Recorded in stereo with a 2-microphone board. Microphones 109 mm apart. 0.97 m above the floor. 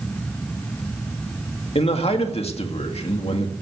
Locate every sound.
1.8 s a man speaking: 65° left (ahead or behind), 2.0 m